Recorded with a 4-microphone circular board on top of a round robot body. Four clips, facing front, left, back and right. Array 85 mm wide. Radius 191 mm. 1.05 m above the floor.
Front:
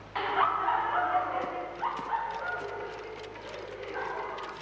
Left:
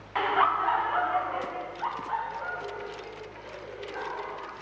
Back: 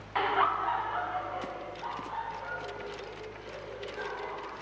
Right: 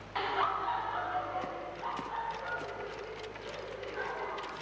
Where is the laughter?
115° left, 0.7 m; by 4.5 s 35° left, 3 m.